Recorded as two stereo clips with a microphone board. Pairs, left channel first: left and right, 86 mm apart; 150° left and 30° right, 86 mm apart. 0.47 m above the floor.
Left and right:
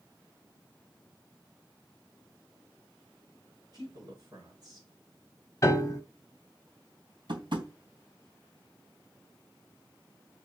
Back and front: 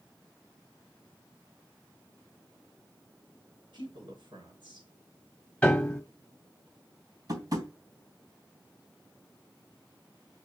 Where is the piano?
75° left, 1.3 m.